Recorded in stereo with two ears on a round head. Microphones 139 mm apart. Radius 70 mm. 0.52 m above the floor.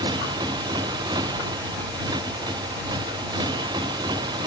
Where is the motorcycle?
25° right (ahead or behind).